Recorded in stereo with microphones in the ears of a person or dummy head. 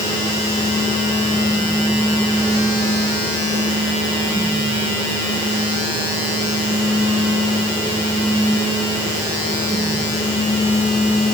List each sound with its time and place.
Only background noise.